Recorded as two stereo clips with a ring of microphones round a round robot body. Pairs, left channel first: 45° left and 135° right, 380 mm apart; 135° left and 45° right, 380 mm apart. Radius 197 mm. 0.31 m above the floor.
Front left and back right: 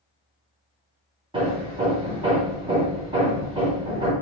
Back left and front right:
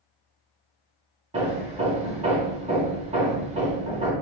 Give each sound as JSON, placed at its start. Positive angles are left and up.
{"t": 1.3, "sound": "hammering", "azimuth_deg": -85, "distance_m": 1.0}